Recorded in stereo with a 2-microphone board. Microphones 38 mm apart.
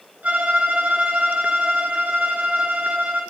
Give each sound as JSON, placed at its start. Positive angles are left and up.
{"t": 0.2, "sound": "a violin", "side_deg": -45, "distance_m": 0.6}